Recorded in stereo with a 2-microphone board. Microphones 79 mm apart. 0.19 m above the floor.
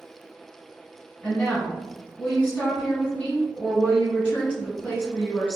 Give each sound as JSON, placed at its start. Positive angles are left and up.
{"t": 1.2, "sound": "a woman speaking", "side_deg": 15, "distance_m": 1.9}